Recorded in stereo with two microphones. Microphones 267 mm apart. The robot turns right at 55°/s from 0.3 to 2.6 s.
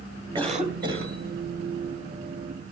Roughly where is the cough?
Behind.